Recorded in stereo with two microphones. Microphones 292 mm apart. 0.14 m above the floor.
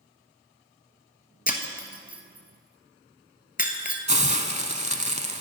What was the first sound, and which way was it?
Breaking glass, 30° left (ahead or behind).